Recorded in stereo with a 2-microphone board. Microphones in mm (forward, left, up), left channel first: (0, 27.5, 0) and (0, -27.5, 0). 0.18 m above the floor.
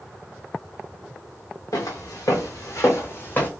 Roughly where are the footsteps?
Left.